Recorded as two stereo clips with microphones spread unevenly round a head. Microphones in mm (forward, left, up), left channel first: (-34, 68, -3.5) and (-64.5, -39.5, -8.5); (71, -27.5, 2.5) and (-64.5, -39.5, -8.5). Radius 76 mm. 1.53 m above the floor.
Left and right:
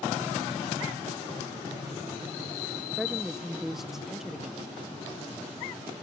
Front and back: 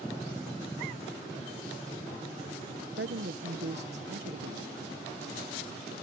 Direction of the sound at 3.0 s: 165° left.